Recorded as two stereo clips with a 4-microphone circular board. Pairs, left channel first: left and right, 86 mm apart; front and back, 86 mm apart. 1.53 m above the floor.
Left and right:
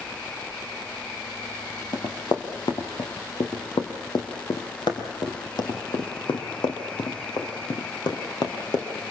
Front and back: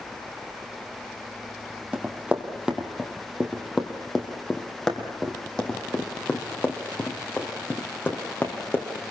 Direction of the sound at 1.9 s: 110° left.